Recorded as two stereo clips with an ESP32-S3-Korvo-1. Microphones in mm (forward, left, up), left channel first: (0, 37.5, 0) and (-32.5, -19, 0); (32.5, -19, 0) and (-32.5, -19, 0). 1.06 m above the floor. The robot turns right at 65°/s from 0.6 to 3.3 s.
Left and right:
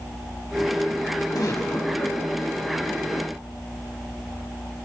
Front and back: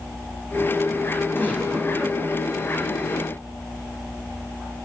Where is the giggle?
50° left, 5.5 m; by 2.2 s 110° left, 5.5 m.